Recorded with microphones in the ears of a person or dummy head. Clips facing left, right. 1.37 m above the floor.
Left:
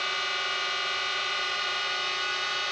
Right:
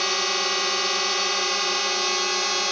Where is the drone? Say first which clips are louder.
Right 9 dB; 70° right (ahead or behind).